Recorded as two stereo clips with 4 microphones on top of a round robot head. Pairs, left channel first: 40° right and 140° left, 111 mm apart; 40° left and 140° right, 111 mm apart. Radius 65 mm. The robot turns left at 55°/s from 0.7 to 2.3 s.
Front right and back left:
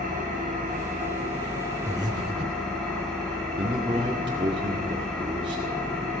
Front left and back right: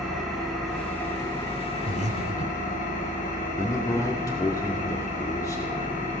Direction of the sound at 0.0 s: 130° left.